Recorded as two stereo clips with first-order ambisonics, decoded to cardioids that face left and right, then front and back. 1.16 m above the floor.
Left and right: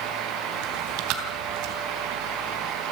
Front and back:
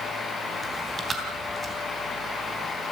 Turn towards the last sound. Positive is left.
turn(degrees=-110)